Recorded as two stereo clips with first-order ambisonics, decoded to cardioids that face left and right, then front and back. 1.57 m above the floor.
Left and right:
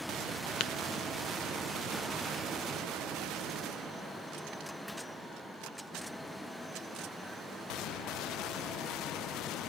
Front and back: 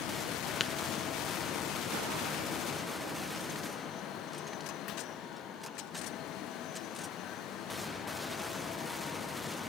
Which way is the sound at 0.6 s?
65° left.